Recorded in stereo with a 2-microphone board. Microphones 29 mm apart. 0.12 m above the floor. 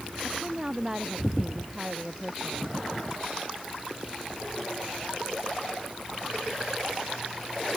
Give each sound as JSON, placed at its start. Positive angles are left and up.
{"t": 0.2, "sound": "a woman speaking", "side_deg": -25}